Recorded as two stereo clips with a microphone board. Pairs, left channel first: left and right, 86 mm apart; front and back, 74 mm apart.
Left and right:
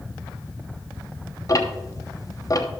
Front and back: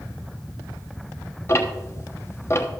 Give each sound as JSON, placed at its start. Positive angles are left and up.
{"t": 1.5, "sound": "ticking", "azimuth_deg": 50, "distance_m": 1.1}